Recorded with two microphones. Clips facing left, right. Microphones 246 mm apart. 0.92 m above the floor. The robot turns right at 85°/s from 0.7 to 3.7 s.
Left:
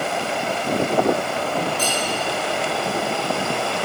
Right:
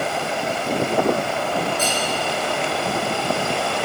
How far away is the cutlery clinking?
About 4.5 m.